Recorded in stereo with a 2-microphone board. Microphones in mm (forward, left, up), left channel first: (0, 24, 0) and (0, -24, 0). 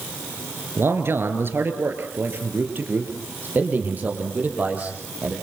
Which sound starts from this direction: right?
A man speaking, at 0.8 s.